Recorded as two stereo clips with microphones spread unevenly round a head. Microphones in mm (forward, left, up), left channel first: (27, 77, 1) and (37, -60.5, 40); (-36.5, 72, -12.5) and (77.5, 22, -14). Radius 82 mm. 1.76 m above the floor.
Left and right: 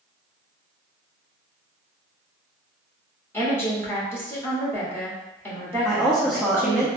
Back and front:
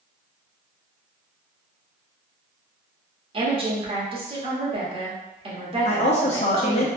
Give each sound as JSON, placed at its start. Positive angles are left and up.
{"t": 3.3, "sound": "a woman speaking", "azimuth_deg": 20, "distance_m": 1.4}
{"t": 5.8, "sound": "a woman speaking", "azimuth_deg": -165, "distance_m": 0.6}